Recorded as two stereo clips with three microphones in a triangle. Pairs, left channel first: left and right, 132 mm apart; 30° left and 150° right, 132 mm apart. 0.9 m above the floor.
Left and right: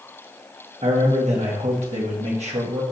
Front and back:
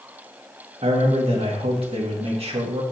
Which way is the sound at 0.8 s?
115° right.